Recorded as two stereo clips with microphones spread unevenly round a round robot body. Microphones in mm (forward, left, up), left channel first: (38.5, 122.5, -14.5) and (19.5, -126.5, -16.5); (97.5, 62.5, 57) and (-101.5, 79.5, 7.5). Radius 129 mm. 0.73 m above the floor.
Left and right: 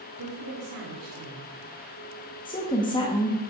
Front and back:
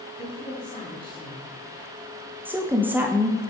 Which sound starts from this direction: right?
A woman speaking, at 0.2 s.